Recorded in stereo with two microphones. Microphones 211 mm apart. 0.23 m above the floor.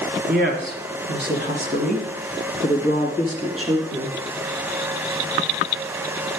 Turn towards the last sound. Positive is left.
turn(degrees=-25)  # may be behind; listen again after turning